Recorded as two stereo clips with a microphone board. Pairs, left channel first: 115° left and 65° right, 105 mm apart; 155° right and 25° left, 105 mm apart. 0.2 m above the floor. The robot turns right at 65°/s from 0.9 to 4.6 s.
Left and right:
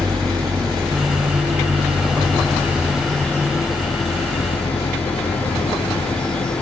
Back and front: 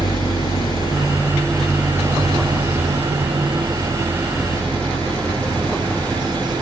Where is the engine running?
115° right; by 6.6 s 125° left.